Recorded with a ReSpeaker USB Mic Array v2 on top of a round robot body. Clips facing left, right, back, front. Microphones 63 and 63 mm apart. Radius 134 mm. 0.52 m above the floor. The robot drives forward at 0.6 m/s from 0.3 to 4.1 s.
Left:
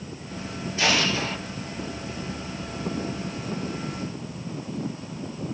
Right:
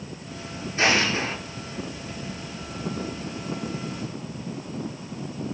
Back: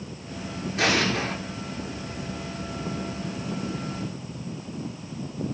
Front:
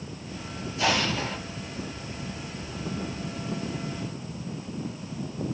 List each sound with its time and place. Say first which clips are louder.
0.8 s an explosion: right 2 dB, back 2 dB; 150° right, 7.5 m; by 1.4 s 155° right, 8 m